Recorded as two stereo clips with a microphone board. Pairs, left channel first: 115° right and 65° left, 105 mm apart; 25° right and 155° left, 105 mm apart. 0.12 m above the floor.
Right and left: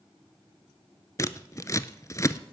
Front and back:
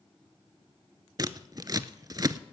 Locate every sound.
1.2 s scissors: 160° right, 0.5 m